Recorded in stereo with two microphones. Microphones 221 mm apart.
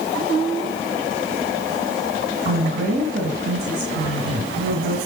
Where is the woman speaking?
45° right (ahead or behind), 2 m.